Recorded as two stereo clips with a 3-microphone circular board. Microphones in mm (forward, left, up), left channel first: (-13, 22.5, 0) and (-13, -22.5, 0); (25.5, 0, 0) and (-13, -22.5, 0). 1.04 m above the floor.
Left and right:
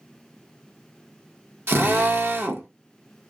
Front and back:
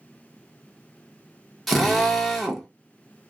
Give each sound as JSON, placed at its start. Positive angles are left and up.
{"t": 1.7, "sound": "a drill", "azimuth_deg": -60, "distance_m": 1.1}